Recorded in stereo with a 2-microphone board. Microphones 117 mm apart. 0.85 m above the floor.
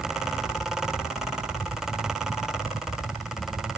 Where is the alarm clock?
I don't hear an alarm clock.